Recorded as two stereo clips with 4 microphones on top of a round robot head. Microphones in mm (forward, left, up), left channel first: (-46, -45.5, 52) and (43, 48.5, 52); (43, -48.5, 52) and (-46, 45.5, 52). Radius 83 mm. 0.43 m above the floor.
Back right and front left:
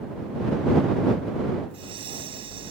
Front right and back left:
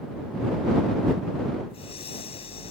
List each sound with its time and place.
1.7 s breathing: straight ahead